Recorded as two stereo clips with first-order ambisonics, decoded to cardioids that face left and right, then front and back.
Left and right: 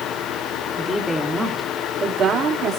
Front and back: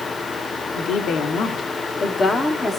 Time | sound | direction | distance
0.8 | a woman speaking | 15° left | 1.7 m